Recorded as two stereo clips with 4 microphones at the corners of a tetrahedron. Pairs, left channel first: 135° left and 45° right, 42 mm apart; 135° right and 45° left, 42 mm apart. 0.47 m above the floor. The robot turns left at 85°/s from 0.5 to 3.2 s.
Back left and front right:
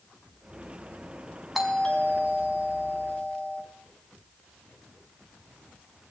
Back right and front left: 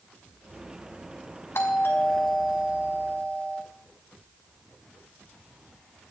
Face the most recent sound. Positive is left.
turn(degrees=90)